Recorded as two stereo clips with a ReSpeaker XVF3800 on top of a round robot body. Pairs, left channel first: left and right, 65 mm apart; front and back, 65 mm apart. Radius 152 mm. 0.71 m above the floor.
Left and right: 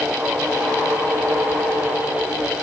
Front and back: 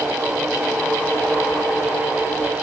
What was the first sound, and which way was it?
Only background noise.